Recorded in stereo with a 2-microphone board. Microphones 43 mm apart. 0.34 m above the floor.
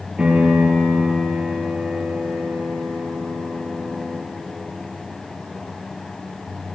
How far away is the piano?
About 6.5 m.